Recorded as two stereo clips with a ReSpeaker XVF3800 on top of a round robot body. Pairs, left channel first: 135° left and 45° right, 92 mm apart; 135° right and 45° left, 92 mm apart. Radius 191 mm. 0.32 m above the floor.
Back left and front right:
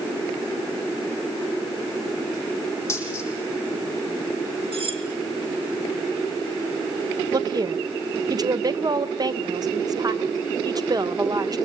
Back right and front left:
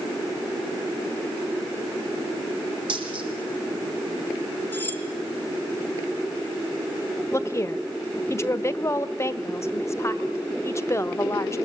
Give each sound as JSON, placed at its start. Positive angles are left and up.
{"t": 2.9, "sound": "a dropped coin", "azimuth_deg": 75, "distance_m": 8.0}
{"t": 4.7, "sound": "cutlery clinking", "azimuth_deg": -65, "distance_m": 4.5}
{"t": 7.3, "sound": "a woman speaking", "azimuth_deg": -80, "distance_m": 1.5}